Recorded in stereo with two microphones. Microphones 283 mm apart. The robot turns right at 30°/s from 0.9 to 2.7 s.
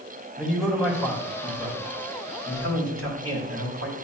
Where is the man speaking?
Centre (ahead or behind), 2 m; by 3.9 s 55° right (ahead or behind), 2 m.